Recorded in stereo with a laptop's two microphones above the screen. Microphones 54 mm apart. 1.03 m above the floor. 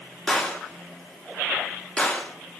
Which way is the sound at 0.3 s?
15° left (ahead or behind).